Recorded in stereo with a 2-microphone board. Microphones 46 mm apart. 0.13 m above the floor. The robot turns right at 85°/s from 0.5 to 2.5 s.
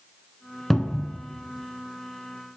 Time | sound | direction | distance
0.7 | a cupboard door | 15° left | 0.5 m